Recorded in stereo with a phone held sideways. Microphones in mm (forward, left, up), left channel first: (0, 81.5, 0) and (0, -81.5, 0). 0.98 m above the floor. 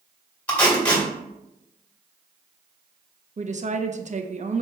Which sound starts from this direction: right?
A woman speaking, at 3.4 s.